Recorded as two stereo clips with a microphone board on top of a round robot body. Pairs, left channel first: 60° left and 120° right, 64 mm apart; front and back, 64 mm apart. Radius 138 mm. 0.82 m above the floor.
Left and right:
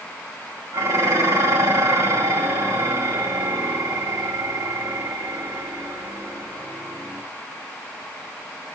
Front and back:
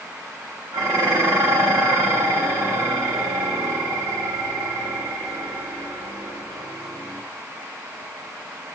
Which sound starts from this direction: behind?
Dishes clattering, at 0.7 s.